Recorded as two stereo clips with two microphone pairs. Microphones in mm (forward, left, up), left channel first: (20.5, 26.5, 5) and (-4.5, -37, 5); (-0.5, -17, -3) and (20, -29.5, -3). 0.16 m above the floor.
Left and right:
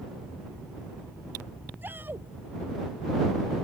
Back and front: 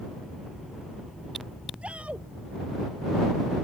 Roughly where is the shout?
Ahead right.